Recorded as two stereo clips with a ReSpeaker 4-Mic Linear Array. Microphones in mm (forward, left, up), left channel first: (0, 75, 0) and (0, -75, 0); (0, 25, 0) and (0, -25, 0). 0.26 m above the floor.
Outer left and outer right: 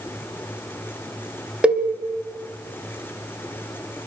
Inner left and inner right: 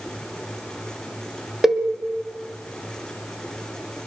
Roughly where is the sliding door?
No sliding door in this recording.